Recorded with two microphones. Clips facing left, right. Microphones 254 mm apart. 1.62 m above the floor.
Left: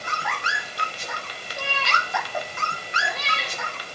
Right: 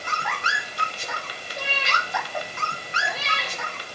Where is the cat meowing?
25° right (ahead or behind), 6.5 m; by 3.6 s 5° left (ahead or behind), 5 m.